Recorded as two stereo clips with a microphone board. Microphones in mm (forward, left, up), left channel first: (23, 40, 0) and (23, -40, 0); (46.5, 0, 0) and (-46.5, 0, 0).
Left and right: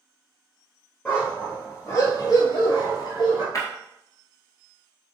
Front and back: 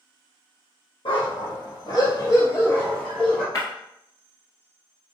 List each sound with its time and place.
1.1 s a dog barking: 25° left, 1.5 m; by 3.5 s 85° left, 1.4 m
3.5 s breaking glass: 50° left, 1.4 m